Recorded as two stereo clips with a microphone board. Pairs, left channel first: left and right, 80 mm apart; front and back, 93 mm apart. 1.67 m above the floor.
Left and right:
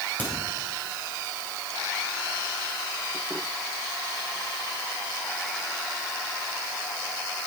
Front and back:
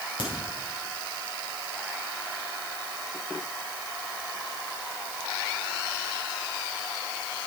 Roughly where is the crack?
Ahead left.